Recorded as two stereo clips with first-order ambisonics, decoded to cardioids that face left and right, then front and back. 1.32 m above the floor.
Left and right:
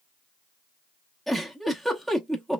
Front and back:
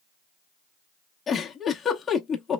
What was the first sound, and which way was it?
A giggle, 5° right.